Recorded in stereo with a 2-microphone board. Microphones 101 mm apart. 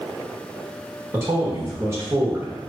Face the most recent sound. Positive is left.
turn(degrees=-25)  # may be behind; listen again after turning